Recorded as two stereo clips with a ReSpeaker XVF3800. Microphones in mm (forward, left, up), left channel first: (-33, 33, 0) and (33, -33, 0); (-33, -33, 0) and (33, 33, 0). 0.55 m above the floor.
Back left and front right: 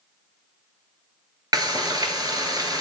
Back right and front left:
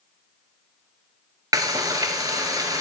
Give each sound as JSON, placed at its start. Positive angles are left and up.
{"t": 1.5, "sound": "frying", "azimuth_deg": -5, "distance_m": 1.6}